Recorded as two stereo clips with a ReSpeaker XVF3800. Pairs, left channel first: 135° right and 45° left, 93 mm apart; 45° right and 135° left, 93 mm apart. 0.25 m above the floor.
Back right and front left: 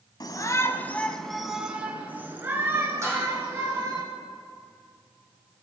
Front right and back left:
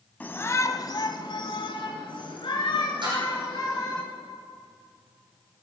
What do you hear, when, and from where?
0.2 s a shout: 110° right, 1.5 m; by 4.0 s 10° right, 4.5 m
3.0 s dishes clattering: 105° left, 7 m